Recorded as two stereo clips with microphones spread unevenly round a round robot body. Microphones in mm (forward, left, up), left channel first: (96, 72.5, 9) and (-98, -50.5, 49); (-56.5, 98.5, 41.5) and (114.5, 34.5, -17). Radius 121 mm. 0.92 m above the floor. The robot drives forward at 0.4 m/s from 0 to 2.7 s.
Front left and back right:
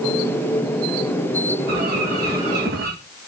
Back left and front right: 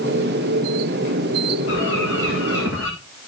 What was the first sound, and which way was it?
A bird, 160° left.